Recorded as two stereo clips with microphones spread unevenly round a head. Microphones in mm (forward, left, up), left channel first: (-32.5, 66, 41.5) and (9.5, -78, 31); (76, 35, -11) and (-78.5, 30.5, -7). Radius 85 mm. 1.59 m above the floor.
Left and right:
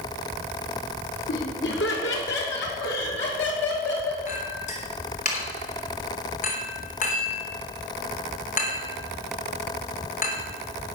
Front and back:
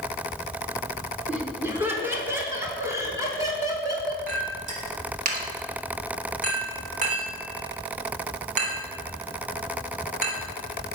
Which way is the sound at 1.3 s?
105° left.